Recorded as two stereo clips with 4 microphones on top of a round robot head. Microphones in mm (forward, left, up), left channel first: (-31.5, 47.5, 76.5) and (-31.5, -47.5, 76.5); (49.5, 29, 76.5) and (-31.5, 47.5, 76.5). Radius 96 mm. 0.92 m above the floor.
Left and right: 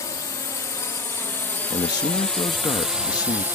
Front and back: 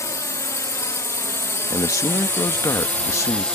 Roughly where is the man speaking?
Ahead left.